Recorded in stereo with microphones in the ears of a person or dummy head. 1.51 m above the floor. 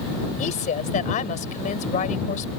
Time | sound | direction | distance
0.4 | a woman speaking | 35° left (ahead or behind) | ?